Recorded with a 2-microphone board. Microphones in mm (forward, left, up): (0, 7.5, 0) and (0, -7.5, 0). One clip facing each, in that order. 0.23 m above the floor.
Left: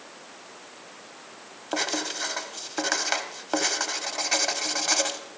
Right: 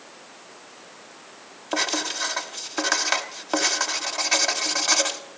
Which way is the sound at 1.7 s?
10° right (ahead or behind).